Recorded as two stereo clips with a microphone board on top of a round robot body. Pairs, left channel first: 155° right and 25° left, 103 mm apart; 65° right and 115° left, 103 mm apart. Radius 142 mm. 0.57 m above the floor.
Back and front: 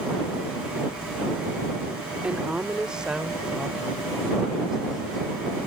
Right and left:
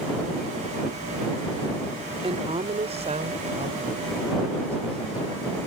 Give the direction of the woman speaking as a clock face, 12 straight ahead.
9 o'clock.